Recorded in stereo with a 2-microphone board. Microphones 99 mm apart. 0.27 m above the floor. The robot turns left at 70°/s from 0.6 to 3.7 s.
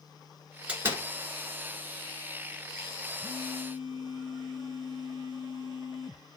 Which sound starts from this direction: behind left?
A phone buzzing, at 3.2 s.